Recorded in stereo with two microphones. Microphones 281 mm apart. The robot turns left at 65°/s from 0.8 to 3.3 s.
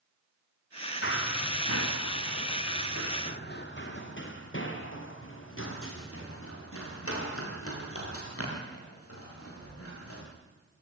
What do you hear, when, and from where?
1.0 s running footsteps: 50° left (ahead or behind), 1.7 m; by 10.2 s 60° left (ahead or behind), 12 m